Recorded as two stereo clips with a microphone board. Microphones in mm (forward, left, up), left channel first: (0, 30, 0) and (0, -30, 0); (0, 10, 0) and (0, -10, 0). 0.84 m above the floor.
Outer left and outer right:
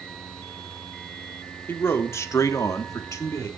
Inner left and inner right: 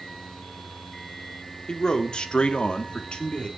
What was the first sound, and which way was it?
A man speaking, 40° left (ahead or behind).